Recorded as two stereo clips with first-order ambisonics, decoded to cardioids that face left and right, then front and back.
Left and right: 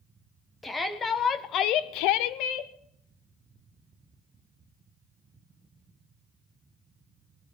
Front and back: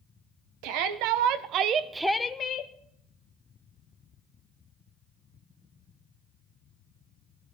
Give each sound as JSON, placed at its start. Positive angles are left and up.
{"t": 0.6, "sound": "a shout", "azimuth_deg": 170, "distance_m": 1.5}